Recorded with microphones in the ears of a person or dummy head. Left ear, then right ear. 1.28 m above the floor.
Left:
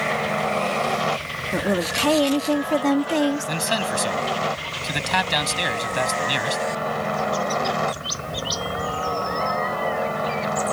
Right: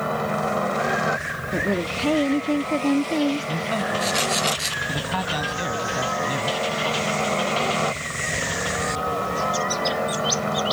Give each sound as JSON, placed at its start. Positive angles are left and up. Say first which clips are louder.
{"t": 0.0, "sound": "a helicopter", "louder": "left 2 dB", "side_deg": 15}
{"t": 1.5, "sound": "a woman speaking", "louder": "left 2 dB", "side_deg": 45}
{"t": 3.5, "sound": "a man speaking", "louder": "left 1 dB", "side_deg": 75}